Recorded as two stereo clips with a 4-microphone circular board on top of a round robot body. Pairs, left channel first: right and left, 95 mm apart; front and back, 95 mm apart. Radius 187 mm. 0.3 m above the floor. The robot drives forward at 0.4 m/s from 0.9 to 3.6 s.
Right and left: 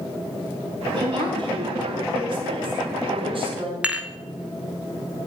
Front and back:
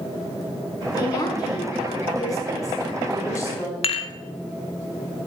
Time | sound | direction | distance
0.9 | a woman speaking | 50° left | 5 m
3.8 | dishes clattering | 10° left | 1.3 m